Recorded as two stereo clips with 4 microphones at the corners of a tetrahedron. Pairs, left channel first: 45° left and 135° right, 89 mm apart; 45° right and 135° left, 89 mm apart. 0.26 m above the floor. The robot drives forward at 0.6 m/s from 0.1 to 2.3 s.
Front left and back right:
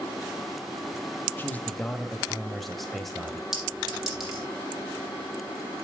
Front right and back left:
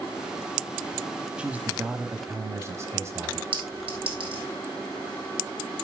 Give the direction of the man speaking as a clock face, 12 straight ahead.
10 o'clock.